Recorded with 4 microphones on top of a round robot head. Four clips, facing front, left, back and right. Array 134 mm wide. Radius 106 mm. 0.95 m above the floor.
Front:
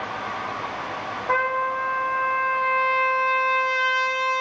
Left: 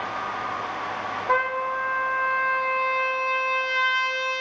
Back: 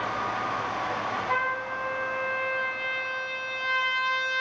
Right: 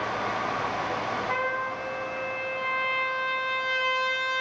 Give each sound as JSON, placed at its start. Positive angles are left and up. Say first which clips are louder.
{"t": 1.3, "sound": "a trumpet", "louder": "left 5 dB, front 11 dB", "azimuth_deg": 40, "distance_m": 1.7}